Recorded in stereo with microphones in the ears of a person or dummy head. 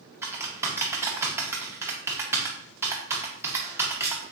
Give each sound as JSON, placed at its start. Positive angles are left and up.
{"t": 0.2, "sound": "typing on a keyboard", "side_deg": -15, "distance_m": 0.7}